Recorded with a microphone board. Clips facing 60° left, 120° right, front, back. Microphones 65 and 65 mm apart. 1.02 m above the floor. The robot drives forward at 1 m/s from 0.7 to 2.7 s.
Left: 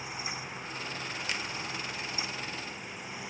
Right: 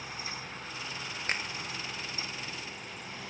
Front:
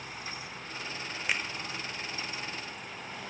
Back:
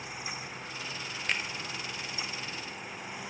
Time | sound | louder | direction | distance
1.3 | a finger snap | right 4 dB, front 1 dB | 80° right | 0.9 m